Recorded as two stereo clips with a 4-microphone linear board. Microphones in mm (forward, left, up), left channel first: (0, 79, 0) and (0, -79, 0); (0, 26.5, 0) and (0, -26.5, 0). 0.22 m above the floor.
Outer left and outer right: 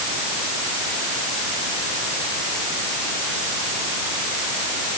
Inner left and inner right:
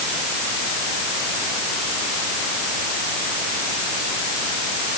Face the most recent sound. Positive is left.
No sound to turn to.